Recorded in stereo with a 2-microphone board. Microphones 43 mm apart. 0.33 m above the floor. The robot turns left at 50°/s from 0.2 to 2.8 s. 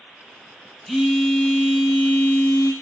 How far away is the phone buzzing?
About 0.7 m.